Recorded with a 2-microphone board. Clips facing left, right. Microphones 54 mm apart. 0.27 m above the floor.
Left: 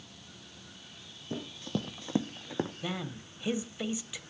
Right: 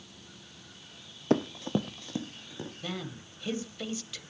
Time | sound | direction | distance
1.3 | running footsteps | 65° right (ahead or behind) | 0.8 m
2.8 | a man speaking | 15° left (ahead or behind) | 1.1 m